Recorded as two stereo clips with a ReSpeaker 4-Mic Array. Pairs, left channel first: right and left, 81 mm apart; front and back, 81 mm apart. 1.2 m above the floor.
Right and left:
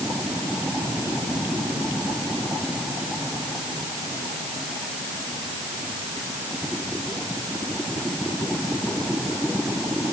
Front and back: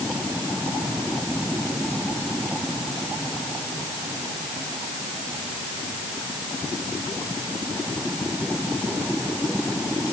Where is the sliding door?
I don't hear a sliding door.